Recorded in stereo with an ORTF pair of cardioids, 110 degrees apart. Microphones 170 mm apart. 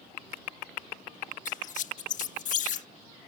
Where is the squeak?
55° left.